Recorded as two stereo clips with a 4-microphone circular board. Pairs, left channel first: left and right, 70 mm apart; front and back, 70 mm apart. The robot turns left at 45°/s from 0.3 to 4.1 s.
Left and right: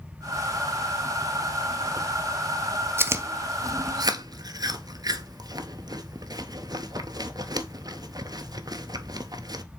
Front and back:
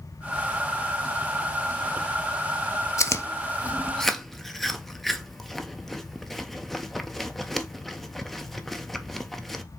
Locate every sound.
3.0 s chewing: 40° right, 0.6 m; by 9.6 s 90° right, 0.6 m